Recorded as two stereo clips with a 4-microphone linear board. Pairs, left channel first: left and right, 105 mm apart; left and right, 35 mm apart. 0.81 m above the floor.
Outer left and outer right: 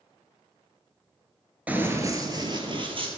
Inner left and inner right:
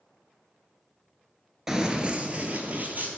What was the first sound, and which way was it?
Running footsteps, 15° right (ahead or behind).